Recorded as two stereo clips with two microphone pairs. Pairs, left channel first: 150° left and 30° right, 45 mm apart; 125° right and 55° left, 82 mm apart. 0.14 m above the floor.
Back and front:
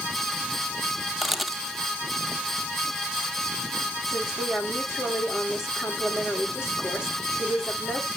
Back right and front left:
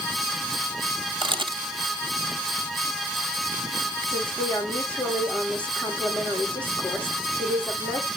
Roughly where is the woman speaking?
Behind.